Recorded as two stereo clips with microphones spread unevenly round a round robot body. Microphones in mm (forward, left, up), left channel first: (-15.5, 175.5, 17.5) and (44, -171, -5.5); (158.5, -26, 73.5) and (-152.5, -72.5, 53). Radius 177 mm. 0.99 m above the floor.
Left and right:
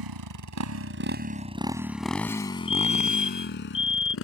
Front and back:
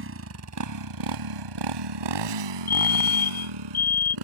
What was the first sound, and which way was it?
A motorcycle, 115° right.